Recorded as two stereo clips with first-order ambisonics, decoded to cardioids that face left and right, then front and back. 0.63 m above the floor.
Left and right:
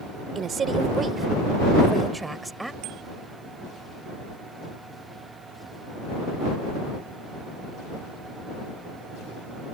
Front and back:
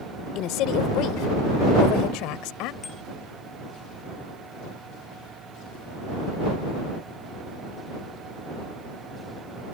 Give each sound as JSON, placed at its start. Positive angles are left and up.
{"t": 0.3, "sound": "a woman speaking", "azimuth_deg": -30}
{"t": 2.8, "sound": "a bicycle bell", "azimuth_deg": -70}